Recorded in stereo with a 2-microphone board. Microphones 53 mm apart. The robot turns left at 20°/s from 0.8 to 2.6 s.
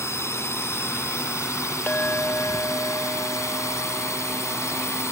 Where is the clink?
35° left (ahead or behind); by 4.9 s 45° left (ahead or behind).